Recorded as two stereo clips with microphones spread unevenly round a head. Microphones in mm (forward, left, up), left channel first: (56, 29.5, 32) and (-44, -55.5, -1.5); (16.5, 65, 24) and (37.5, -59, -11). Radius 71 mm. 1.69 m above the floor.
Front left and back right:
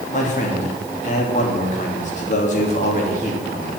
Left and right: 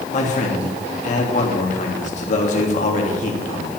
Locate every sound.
0.1 s a man speaking: 80° left, 3 m